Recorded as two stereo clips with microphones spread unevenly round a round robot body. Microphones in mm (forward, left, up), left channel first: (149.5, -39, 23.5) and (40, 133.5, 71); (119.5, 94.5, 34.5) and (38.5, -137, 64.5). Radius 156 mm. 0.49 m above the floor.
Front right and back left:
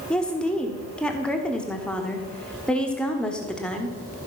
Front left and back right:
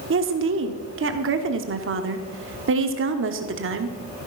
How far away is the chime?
I don't hear a chime.